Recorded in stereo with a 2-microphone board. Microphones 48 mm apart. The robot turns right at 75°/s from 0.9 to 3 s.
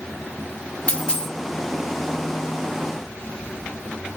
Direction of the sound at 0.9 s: 25° left (ahead or behind).